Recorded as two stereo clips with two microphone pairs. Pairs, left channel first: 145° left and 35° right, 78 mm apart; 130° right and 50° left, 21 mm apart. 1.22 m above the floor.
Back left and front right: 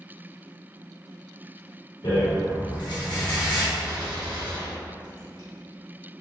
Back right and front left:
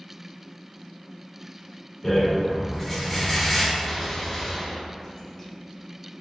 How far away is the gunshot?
About 1.4 m.